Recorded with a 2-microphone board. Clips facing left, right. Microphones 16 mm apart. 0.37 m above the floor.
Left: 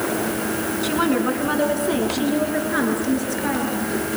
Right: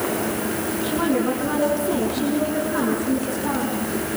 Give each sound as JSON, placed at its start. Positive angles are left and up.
{"t": 0.8, "sound": "a woman speaking", "side_deg": 70, "distance_m": 4.5}